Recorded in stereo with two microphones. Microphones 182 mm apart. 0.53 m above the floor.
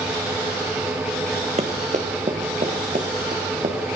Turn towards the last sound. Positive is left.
turn(degrees=-50)  # may be behind; listen again after turning